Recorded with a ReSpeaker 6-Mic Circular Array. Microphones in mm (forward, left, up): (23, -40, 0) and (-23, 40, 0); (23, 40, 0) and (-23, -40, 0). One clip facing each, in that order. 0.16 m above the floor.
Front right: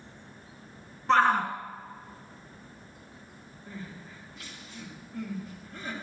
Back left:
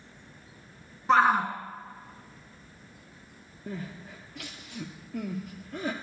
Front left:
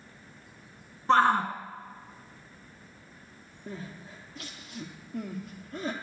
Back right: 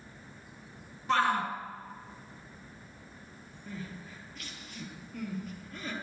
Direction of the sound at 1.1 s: 50° left.